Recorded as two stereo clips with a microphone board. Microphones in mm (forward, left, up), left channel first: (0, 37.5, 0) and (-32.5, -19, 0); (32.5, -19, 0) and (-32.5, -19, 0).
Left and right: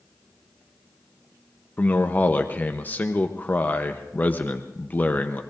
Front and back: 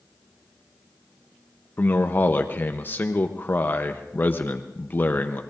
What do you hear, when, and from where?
1.8 s a man speaking: 25° left, 0.7 m